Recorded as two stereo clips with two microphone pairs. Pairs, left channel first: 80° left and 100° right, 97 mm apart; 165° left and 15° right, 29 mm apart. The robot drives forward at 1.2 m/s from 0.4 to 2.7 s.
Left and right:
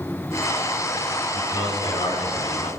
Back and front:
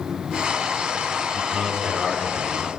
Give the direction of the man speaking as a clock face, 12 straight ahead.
10 o'clock.